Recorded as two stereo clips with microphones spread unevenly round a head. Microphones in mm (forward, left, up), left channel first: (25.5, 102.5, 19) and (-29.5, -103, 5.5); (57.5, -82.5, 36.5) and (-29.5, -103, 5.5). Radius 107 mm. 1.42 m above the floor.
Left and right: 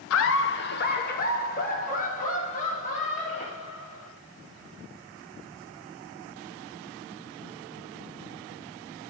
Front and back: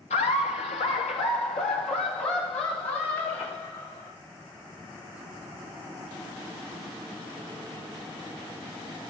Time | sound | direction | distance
0.1 | laughter | 45° left | 0.6 m